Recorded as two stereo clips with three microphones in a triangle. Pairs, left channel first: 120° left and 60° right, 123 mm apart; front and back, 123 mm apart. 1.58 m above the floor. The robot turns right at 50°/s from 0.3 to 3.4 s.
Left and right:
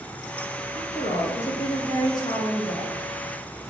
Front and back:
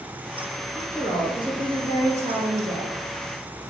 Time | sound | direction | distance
0.8 | a woman speaking | 100° left | 1.2 m